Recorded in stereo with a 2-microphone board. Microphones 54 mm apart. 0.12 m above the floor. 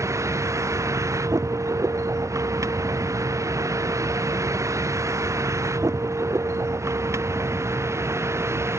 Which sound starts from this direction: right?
A vehicle, at 0.0 s.